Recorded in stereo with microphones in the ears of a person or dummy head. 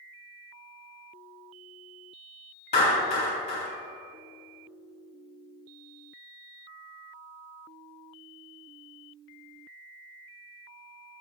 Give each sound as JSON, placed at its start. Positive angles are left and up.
{"t": 2.7, "sound": "a clap", "side_deg": 50, "distance_m": 3.5}